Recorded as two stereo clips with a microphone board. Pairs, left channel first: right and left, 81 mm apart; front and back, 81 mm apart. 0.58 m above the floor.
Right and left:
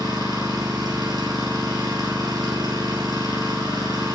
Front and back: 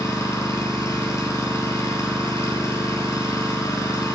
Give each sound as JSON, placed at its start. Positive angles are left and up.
{"t": 0.0, "sound": "an engine running", "azimuth_deg": 55, "distance_m": 5.0}